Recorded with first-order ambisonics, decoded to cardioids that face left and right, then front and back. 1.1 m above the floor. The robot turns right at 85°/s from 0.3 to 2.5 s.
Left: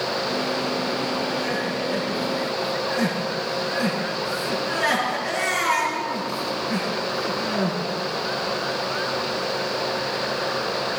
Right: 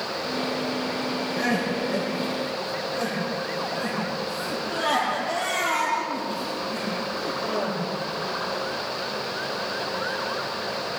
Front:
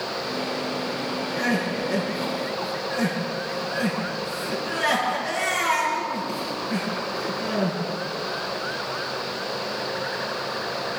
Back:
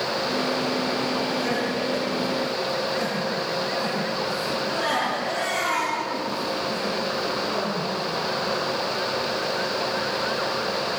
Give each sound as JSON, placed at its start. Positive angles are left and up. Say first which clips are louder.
{"t": 1.4, "sound": "crying", "louder": "even, even", "azimuth_deg": -30, "distance_m": 9.5}